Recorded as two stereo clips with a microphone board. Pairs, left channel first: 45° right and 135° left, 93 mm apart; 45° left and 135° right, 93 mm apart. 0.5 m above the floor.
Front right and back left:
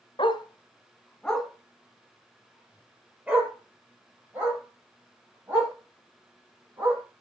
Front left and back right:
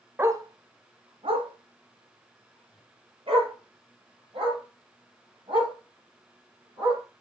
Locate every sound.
0.2 s a dog barking: 70° right, 1.2 m; by 7.0 s 160° right, 10.5 m